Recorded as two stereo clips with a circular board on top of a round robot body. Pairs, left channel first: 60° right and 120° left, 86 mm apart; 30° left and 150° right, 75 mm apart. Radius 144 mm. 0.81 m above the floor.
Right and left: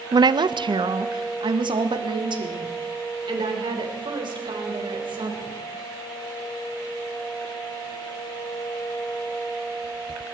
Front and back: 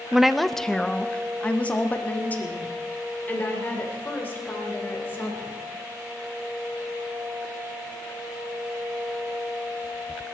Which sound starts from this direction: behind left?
A woman speaking, at 0.1 s.